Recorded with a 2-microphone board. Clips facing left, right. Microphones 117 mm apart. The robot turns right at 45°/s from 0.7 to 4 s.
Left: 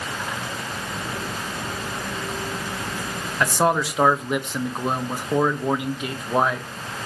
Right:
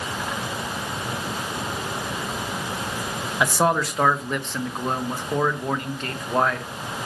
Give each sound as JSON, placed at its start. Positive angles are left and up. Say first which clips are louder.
{"t": 3.4, "sound": "a man speaking", "louder": "left 1 dB", "side_deg": -10, "distance_m": 0.9}